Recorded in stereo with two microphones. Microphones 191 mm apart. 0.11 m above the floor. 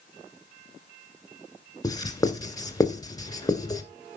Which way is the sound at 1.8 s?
20° left (ahead or behind).